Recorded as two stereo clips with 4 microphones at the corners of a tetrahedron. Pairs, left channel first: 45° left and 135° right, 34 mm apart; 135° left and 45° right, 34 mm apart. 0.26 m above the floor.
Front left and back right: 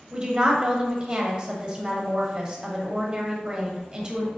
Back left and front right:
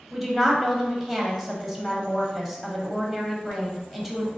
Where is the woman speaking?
120° right, 1.0 m.